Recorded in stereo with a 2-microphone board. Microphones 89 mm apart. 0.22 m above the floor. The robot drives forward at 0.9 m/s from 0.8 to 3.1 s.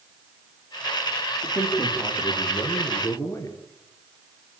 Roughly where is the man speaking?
Left.